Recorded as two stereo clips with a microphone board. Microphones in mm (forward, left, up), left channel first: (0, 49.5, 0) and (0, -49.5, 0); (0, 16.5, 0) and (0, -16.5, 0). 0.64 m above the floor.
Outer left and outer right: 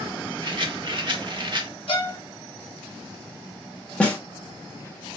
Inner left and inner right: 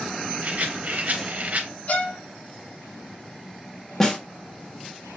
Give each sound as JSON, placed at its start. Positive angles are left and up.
{"t": 0.4, "sound": "a rattle", "side_deg": -55, "distance_m": 0.7}
{"t": 1.9, "sound": "a violin", "side_deg": 70, "distance_m": 1.4}
{"t": 4.0, "sound": "a snare drum", "side_deg": 10, "distance_m": 0.9}